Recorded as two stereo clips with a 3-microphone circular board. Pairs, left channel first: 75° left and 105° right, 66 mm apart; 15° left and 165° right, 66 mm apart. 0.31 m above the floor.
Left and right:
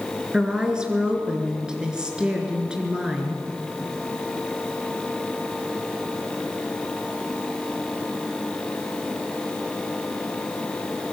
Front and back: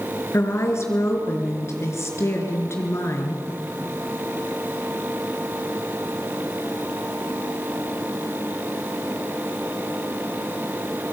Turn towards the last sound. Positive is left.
turn(degrees=-30)